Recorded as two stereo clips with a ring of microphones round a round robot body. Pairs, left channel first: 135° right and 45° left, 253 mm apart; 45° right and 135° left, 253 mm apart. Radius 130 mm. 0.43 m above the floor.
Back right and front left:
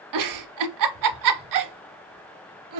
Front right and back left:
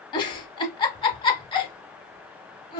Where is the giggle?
30° left, 0.5 m.